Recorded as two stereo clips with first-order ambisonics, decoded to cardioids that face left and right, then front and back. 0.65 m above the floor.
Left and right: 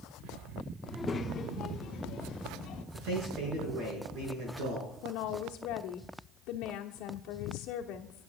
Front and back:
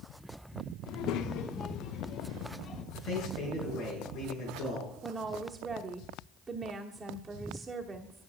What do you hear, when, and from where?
0.9 s a child speaking: straight ahead, 0.9 m; by 2.8 s 55° left, 2.5 m
2.9 s a man speaking: 55° right, 7 m
5.0 s a woman speaking: 105° left, 1.1 m